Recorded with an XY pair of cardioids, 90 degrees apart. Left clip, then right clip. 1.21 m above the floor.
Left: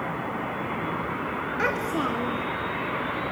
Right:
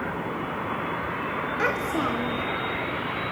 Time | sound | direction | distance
1.6 | a child speaking | straight ahead | 1.2 m